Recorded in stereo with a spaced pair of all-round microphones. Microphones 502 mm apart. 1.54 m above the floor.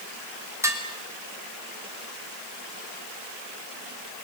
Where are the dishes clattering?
5° right (ahead or behind), 3 m.